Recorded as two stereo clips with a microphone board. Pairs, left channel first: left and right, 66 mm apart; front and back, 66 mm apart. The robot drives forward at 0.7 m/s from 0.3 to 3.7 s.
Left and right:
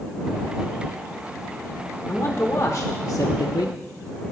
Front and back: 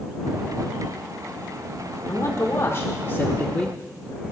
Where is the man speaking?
25° left, 1.4 m; by 3.8 s 80° left, 0.6 m.